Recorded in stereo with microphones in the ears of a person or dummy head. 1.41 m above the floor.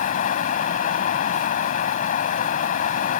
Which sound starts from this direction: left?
Running water, at 0.0 s.